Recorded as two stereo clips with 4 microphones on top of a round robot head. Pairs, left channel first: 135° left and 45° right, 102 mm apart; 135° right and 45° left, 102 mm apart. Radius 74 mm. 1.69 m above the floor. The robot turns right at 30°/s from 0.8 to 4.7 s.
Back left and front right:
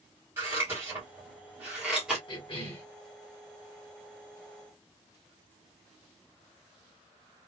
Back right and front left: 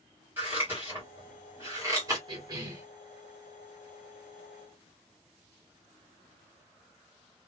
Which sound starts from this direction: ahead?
Scissors, at 0.4 s.